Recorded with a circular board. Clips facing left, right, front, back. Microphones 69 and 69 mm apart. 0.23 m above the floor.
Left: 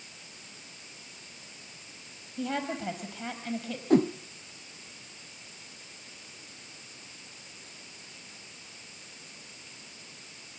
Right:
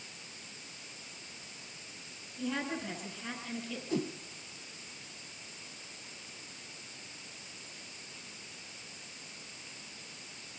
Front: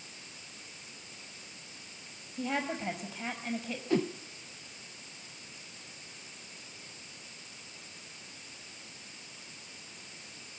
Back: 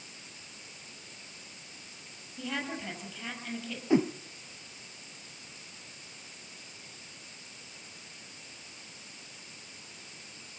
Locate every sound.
2.4 s a woman speaking: 70° left, 6 m
3.9 s a whoosh: 115° left, 0.5 m